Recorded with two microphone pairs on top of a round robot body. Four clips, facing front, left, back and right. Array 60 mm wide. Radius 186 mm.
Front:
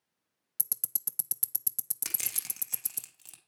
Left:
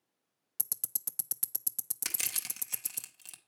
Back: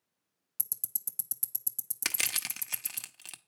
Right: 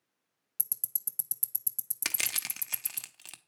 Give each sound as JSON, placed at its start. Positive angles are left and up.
{"t": 0.6, "sound": "ticking", "azimuth_deg": 45, "distance_m": 0.7}
{"t": 2.0, "sound": "crushing", "azimuth_deg": -135, "distance_m": 1.0}